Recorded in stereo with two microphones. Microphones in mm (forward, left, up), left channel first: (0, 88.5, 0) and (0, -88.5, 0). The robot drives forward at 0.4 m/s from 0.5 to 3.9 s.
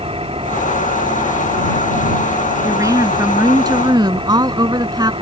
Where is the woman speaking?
20° right (ahead or behind); by 5.1 s 25° right (ahead or behind).